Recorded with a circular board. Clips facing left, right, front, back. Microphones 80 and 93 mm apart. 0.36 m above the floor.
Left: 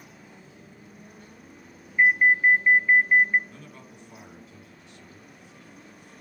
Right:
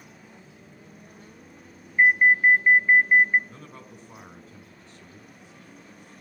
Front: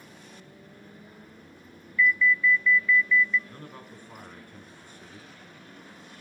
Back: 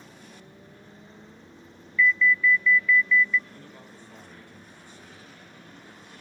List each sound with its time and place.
2.0 s an alarm: 50° right, 0.7 m
3.5 s a man speaking: 40° right, 6.5 m